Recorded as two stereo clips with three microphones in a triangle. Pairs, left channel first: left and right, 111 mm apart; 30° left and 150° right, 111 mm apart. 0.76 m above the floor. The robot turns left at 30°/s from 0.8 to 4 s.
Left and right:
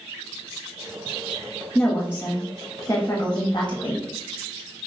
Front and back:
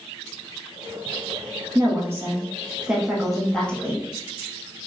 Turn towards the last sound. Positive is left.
turn(degrees=95)